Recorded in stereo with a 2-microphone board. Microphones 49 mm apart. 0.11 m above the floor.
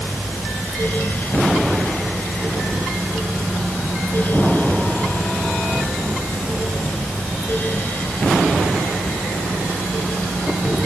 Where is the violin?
No violin in this recording.